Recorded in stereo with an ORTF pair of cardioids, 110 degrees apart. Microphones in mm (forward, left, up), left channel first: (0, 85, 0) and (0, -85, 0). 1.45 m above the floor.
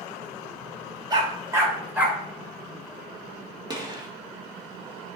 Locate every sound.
1.1 s a dog barking: 25° right, 2.5 m; by 2.2 s 5° right, 3 m
3.7 s a gunshot: 25° right, 2.0 m